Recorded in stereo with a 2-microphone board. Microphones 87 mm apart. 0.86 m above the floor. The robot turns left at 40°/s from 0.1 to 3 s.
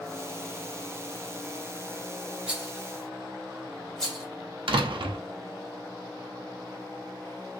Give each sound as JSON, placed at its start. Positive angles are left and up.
{"t": 2.5, "sound": "a rattle", "side_deg": -10, "distance_m": 1.1}
{"t": 4.7, "sound": "a door slam", "side_deg": -75, "distance_m": 0.6}